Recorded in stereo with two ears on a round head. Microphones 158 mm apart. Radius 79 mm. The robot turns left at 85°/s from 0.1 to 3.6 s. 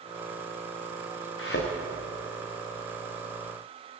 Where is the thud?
75° left (ahead or behind), 6.5 m; by 1.7 s 50° left (ahead or behind), 6.5 m.